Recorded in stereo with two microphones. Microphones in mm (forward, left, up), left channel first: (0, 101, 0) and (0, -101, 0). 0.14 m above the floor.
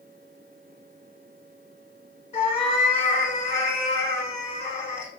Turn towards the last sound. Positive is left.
turn(degrees=30)  # may be behind; listen again after turning